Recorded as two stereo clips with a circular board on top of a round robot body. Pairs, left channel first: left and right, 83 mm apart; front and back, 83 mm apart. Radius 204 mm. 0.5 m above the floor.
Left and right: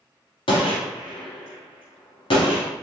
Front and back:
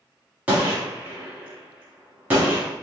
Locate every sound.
0.5 s a gunshot: 110° left, 0.9 m